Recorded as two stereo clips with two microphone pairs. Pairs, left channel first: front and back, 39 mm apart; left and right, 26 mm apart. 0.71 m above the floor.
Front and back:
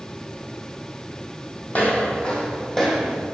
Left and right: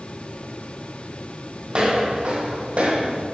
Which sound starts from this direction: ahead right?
Footsteps, at 1.7 s.